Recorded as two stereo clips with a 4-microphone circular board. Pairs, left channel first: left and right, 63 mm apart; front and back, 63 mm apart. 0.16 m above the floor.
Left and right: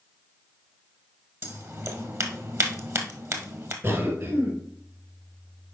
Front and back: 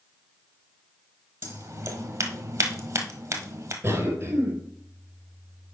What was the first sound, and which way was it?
Scissors, 135° right.